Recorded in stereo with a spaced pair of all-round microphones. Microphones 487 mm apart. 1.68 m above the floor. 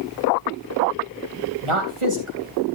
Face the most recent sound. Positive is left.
turn(degrees=-90)